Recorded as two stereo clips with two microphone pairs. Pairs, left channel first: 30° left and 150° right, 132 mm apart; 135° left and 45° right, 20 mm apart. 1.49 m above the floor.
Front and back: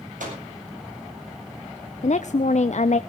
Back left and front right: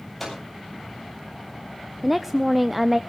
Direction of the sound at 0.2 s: 140° right.